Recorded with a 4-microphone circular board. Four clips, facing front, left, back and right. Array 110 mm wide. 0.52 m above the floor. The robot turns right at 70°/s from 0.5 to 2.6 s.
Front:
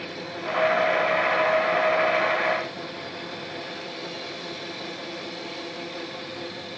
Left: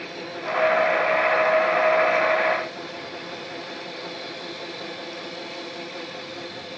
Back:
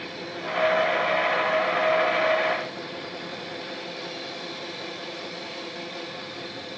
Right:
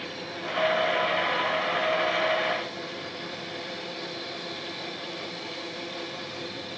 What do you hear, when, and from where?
Only background noise.